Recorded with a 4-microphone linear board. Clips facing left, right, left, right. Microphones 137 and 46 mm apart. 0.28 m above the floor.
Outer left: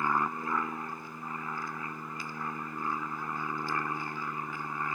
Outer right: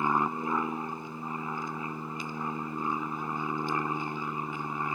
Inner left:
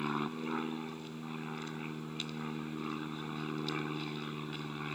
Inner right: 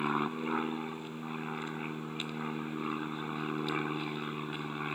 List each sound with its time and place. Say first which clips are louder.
0.0 s an aircraft: outer right 2 dB, inner right 4 dB; 20° right (ahead or behind)